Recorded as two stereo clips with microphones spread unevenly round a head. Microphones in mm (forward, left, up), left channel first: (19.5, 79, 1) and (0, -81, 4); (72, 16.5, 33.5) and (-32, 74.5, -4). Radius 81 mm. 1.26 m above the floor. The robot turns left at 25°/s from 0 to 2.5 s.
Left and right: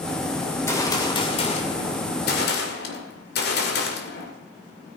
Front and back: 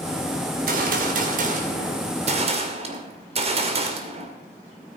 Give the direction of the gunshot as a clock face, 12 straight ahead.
7 o'clock.